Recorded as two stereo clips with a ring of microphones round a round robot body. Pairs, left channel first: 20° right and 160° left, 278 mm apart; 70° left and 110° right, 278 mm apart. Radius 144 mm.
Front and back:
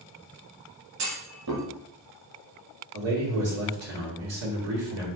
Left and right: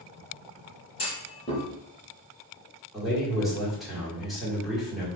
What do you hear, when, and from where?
1.0 s a clunk: 140° left, 1.6 m
2.9 s a man speaking: 160° left, 1.9 m